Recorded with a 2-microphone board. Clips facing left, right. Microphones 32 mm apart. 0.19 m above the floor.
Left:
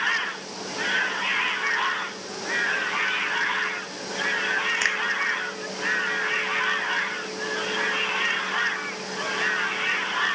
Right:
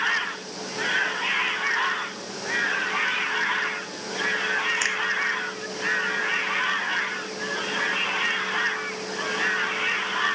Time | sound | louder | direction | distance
4.8 | a finger snap | left 2 dB | 15° left (ahead or behind) | ?